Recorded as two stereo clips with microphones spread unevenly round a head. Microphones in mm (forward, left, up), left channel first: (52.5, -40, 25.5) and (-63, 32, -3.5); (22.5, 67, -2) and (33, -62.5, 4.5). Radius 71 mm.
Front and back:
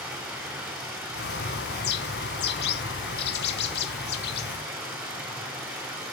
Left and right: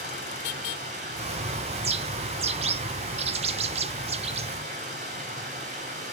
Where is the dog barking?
No dog barking in this recording.